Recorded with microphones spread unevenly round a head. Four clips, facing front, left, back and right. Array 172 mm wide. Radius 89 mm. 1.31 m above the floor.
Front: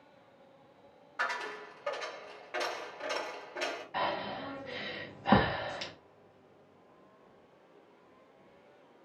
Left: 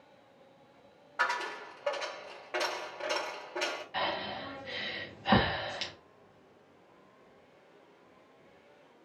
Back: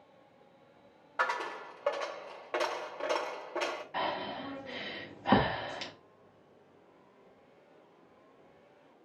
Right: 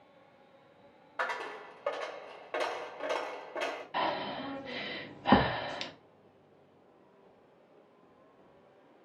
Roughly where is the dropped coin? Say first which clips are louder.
Left 3 dB, back 3 dB; behind.